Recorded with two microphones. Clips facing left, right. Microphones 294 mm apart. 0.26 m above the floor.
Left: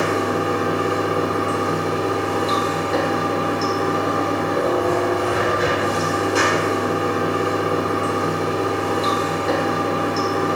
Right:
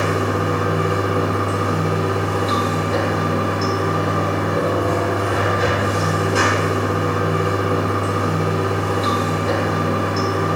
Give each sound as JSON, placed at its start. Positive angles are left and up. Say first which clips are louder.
{"t": 0.0, "sound": "running water", "louder": "even", "side_deg": 0, "distance_m": 1.2}